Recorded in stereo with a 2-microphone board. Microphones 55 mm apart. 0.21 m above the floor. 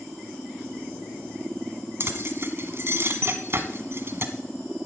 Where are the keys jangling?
45° right (ahead or behind), 1.3 m.